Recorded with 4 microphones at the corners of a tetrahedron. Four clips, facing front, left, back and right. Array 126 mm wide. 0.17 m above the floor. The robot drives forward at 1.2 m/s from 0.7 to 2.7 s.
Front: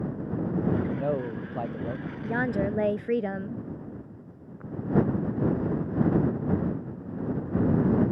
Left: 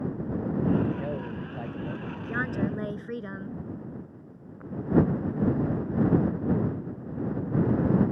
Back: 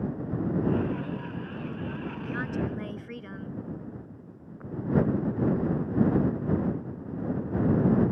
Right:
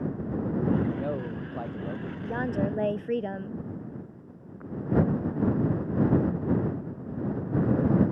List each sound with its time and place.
0.9 s a man speaking: 5° right
2.2 s a woman speaking: 20° right; by 3.6 s 25° right